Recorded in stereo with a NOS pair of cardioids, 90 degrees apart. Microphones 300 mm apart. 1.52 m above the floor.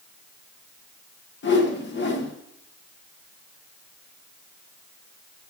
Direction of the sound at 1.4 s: 35° left.